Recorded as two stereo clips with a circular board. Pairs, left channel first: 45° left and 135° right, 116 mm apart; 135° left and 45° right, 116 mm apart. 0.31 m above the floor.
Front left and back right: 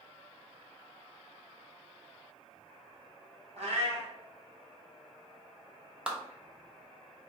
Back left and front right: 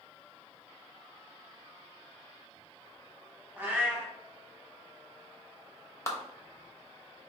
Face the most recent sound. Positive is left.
turn(degrees=155)